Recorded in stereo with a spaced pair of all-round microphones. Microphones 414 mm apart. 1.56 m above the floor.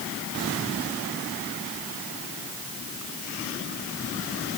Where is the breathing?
I don't hear breathing.